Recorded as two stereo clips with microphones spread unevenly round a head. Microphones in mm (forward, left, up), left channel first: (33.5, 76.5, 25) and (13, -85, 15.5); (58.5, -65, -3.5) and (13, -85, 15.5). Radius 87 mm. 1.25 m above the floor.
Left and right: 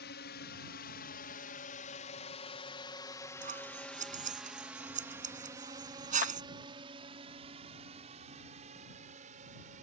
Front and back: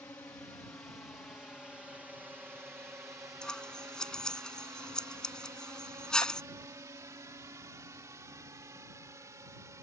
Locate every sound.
0.0 s a drone: 85° left; by 9.8 s 145° right
3.4 s scissors: 55° right
6.2 s a clap: 60° left